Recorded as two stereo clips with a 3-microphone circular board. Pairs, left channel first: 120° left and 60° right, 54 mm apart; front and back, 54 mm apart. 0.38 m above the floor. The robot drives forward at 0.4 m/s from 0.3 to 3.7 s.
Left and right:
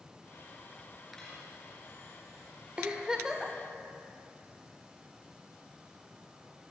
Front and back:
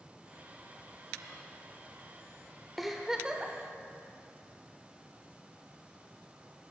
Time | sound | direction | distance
1.2 | cutlery clinking | 165° right | 3.5 m
2.8 | a giggle | 85° right | 0.7 m